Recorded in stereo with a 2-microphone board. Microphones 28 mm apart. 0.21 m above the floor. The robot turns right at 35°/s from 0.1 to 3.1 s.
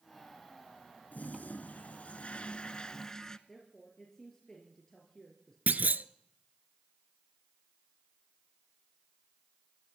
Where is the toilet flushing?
90° left, 0.8 m; by 3.4 s 160° left, 0.8 m.